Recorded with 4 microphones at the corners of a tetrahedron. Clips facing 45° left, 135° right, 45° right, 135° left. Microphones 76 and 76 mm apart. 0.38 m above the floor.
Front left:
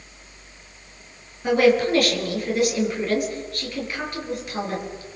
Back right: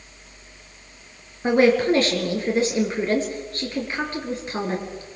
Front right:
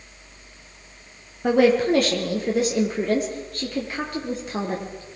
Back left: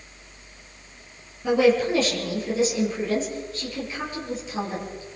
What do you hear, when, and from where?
1.4 s a woman speaking: 75° right, 5.5 m